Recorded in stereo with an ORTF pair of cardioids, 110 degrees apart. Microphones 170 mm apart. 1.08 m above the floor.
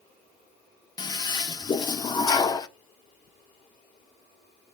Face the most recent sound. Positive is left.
turn(degrees=25)